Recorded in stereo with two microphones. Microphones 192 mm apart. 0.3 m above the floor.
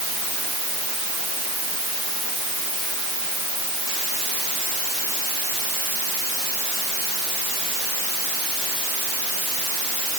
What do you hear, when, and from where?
Only background noise.